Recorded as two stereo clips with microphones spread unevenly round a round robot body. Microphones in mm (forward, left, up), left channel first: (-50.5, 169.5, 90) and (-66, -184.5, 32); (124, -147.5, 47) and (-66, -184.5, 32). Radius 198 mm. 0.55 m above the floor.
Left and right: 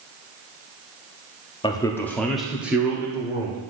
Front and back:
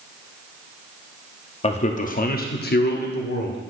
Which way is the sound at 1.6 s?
5° left.